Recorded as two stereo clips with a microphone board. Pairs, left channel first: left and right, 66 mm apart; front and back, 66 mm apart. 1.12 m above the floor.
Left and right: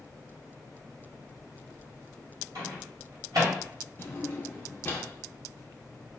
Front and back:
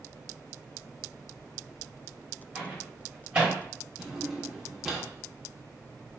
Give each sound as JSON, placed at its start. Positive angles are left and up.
{"t": 2.5, "sound": "a microwave", "azimuth_deg": -115, "distance_m": 1.9}
{"t": 4.0, "sound": "a drawer", "azimuth_deg": 105, "distance_m": 0.8}